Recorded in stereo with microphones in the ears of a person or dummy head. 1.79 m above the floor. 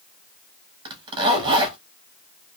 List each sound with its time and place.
0.8 s a zipper: 25° right (ahead or behind), 0.9 m